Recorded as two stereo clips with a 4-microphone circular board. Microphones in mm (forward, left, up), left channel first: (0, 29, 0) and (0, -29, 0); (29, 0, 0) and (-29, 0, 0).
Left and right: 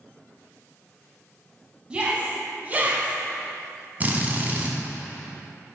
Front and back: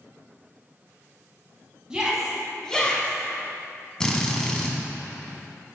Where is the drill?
70° right, 0.8 m.